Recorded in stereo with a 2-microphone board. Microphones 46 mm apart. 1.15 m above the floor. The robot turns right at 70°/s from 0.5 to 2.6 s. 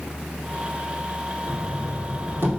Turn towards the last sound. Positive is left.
turn(degrees=-45)